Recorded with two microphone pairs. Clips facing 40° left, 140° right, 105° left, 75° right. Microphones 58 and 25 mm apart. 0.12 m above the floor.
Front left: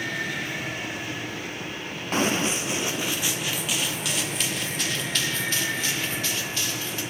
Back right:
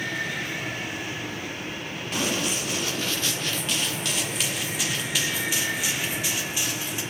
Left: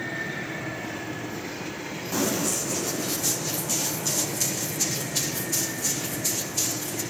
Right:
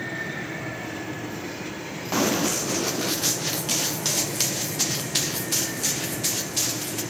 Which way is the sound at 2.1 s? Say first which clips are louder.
Front left 4 dB, right 3 dB; 15° right.